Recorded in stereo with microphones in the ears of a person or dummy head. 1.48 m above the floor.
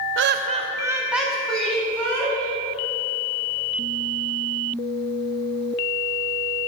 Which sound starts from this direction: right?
Laughter, at 0.2 s.